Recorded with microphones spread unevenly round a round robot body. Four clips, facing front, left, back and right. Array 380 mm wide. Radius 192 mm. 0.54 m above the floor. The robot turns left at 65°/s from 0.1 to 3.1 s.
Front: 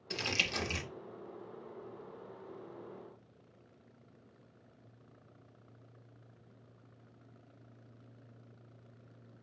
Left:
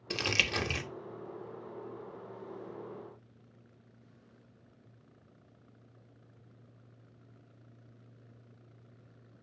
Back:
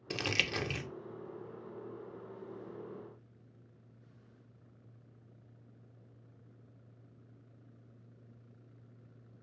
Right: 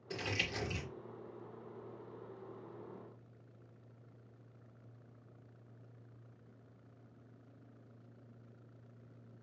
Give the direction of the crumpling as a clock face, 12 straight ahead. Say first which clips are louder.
Left 6 dB, back 2 dB; 8 o'clock.